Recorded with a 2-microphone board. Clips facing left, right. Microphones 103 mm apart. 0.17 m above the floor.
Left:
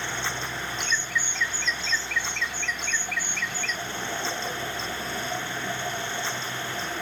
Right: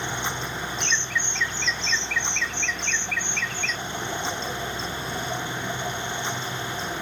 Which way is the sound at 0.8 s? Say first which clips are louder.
Left 1 dB; 5° left (ahead or behind).